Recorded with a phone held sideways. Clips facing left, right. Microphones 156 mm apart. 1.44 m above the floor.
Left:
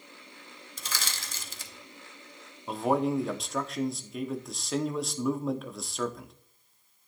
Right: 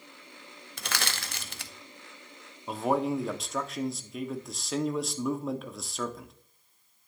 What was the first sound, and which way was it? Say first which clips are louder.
Crushing: right 5 dB; 65° right (ahead or behind).